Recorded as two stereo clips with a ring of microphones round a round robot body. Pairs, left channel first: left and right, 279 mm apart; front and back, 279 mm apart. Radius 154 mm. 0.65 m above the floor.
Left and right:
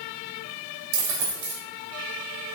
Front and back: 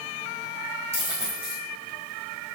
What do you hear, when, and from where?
0.9 s a dropped coin: 100° right, 2.5 m